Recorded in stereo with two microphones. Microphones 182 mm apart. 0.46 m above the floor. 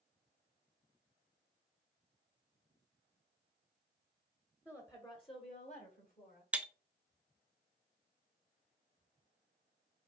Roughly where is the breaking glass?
Centre.